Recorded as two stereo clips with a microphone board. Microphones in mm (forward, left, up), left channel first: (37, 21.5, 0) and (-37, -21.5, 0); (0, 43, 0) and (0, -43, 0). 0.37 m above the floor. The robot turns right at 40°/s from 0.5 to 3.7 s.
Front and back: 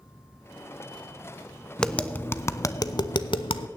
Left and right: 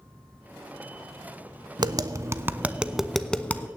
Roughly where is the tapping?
Ahead right.